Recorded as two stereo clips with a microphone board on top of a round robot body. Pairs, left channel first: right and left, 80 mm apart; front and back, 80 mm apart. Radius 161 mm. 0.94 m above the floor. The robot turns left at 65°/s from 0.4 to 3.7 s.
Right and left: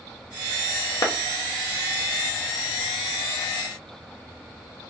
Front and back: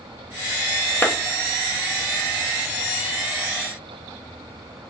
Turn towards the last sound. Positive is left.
turn(degrees=130)